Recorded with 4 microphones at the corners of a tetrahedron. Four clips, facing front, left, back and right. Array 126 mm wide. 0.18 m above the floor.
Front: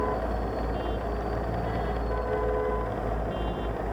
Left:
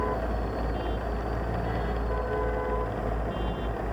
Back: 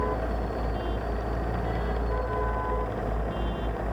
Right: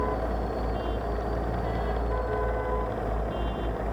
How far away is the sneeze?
I don't hear a sneeze.